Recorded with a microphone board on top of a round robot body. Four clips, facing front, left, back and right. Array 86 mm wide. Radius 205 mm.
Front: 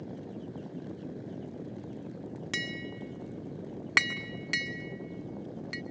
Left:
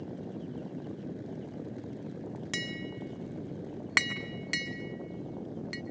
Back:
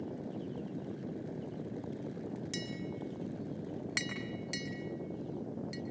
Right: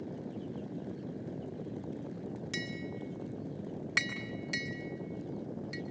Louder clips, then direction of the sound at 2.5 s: Left 1 dB, front 2 dB; 35° left.